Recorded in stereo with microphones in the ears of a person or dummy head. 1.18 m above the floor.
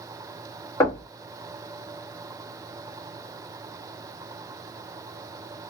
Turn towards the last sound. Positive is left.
turn(degrees=20)  # may be behind; listen again after turning